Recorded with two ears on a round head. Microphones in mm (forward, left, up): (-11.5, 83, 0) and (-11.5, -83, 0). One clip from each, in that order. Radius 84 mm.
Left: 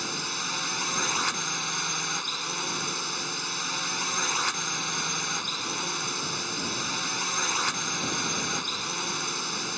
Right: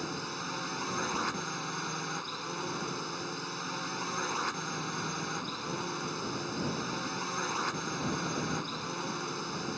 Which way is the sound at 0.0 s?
55° left (ahead or behind).